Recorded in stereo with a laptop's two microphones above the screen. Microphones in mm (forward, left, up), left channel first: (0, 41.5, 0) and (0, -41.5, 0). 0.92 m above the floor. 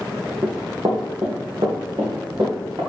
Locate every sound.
0.4 s running footsteps: 60° right (ahead or behind), 1.8 m; by 2.8 s 75° right (ahead or behind), 4 m